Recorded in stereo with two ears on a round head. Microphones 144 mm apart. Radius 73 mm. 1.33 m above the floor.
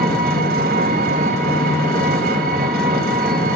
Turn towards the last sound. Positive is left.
turn(degrees=-60)  # may be behind; listen again after turning